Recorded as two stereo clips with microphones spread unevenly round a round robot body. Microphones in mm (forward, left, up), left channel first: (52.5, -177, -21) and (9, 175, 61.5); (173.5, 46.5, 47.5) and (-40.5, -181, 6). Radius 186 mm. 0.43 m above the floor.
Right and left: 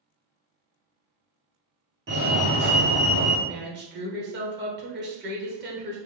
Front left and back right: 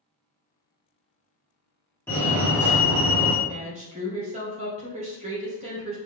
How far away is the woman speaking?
About 1.4 m.